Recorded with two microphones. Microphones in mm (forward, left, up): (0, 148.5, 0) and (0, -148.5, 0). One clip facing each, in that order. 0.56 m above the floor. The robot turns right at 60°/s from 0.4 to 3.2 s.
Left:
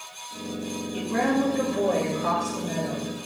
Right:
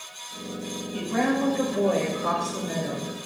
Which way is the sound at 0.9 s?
125° left.